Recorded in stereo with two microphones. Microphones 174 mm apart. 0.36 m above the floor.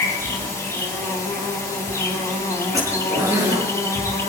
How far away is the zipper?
About 7 m.